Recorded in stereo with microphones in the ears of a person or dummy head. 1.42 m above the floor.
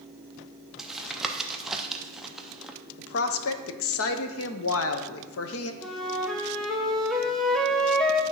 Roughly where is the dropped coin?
No dropped coin in this recording.